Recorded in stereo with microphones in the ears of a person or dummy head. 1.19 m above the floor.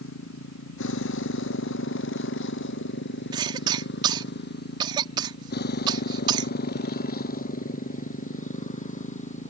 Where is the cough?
25° right (ahead or behind).